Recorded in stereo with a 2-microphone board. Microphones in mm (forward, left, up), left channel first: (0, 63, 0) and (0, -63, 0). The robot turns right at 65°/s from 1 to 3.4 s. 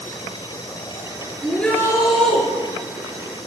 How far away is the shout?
About 5.5 m.